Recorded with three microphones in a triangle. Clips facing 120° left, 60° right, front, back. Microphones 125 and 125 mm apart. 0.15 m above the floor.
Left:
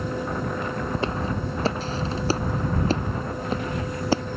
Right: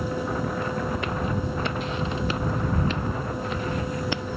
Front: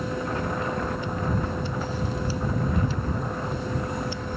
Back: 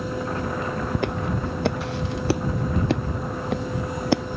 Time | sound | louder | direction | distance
0.9 | footsteps | left 1 dB, back 2 dB | straight behind | ?